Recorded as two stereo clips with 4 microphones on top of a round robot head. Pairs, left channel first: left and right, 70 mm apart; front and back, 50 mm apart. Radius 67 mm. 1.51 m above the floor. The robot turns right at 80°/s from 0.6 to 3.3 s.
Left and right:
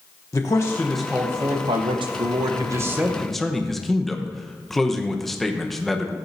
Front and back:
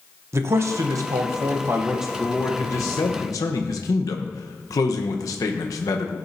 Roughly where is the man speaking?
Behind left.